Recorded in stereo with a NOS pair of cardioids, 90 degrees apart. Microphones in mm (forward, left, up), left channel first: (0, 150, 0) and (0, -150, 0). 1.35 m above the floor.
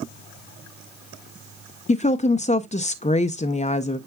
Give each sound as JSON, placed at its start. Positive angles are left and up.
{"t": 1.9, "sound": "a woman speaking", "azimuth_deg": 25, "distance_m": 0.6}